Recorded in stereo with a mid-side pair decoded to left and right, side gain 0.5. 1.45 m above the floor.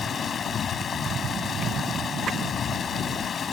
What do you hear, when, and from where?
0.0 s running water: 45° left